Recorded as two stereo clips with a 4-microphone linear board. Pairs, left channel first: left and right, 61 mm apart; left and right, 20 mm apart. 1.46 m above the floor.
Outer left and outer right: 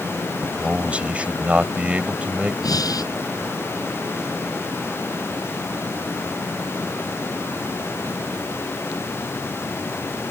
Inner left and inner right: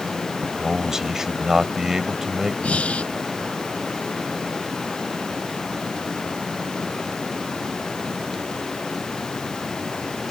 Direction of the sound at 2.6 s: 80° left.